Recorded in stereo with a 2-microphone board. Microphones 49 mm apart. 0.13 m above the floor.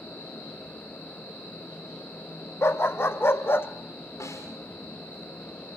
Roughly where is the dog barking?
Left.